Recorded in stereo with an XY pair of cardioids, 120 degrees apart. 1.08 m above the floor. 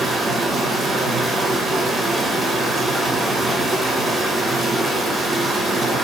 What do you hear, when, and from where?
0.0 s running water: 20° right, 0.8 m